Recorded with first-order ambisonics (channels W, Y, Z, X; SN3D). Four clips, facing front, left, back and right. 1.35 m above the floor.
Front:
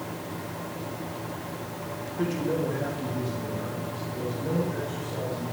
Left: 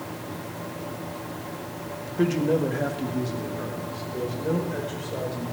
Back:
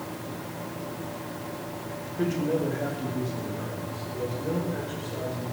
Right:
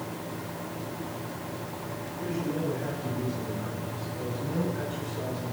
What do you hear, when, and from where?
2.2 s a man speaking: 90° left, 1.9 m; by 5.4 s 95° left, 7 m